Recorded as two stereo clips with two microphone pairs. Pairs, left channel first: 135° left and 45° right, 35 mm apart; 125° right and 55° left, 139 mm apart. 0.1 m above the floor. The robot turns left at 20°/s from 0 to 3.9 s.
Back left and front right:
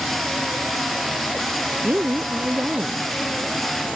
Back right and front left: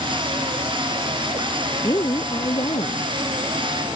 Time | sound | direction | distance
1.8 | a woman speaking | 60° right | ?